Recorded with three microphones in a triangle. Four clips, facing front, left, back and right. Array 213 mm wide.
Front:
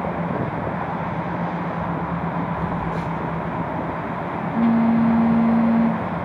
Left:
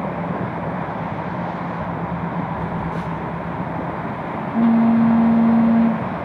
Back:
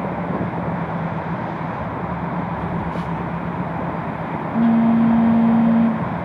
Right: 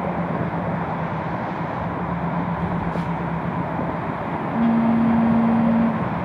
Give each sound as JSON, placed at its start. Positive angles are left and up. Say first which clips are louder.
{"t": 2.6, "sound": "a phone buzzing", "louder": "even, even", "azimuth_deg": 100, "distance_m": 1.1}